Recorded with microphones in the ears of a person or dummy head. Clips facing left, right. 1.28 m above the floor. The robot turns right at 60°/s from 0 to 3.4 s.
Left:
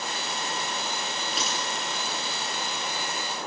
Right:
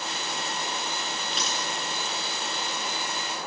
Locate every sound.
1.3 s a dropped coin: 10° left (ahead or behind), 9.5 m; by 1.7 s 30° left (ahead or behind), 9.5 m